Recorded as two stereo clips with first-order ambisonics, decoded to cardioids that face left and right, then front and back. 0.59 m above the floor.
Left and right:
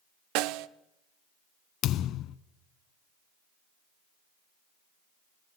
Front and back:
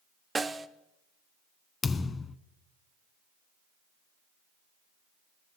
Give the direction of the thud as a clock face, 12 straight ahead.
10 o'clock.